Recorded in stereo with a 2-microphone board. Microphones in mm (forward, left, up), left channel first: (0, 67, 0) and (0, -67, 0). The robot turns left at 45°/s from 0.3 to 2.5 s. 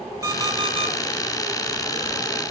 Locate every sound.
0.2 s an alarm clock: 25° right (ahead or behind), 3 m; by 0.9 s 50° right (ahead or behind), 3 m